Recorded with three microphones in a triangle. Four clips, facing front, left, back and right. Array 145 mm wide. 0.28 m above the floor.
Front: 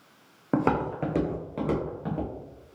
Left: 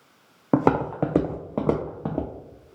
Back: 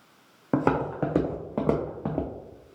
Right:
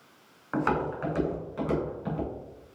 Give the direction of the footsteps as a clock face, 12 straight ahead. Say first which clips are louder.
Left 7 dB, back 1 dB; 9 o'clock.